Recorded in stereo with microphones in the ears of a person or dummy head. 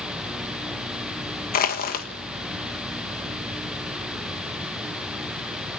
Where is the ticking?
No ticking in this recording.